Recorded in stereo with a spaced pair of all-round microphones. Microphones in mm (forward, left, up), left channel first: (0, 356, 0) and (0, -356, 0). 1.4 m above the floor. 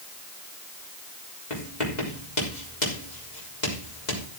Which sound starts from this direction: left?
Writing, at 1.5 s.